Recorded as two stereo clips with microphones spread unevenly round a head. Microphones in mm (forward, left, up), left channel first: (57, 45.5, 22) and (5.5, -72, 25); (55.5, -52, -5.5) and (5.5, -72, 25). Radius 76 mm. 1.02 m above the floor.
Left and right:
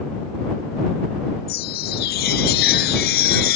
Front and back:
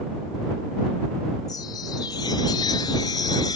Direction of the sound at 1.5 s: 75° left.